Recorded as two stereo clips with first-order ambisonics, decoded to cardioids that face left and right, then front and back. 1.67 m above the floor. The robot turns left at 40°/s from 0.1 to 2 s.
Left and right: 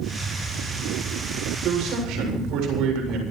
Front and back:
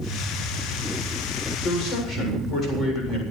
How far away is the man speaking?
About 7.5 m.